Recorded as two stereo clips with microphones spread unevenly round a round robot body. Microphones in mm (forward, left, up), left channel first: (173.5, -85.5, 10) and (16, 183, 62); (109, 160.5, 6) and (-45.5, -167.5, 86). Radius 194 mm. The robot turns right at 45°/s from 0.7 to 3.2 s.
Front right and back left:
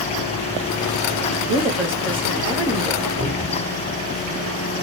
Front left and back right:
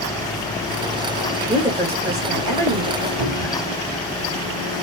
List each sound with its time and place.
1.5 s a woman speaking: 155° left, 1.9 m; by 3.1 s 130° right, 1.9 m
3.2 s a cupboard door: 135° right, 2.5 m